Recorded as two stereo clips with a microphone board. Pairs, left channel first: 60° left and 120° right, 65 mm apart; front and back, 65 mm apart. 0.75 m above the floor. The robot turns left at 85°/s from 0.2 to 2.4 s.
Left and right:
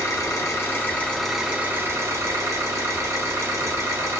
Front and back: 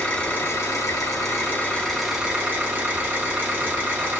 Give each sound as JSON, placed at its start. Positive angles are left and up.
{"t": 0.0, "sound": "an engine running", "azimuth_deg": 65, "distance_m": 0.9}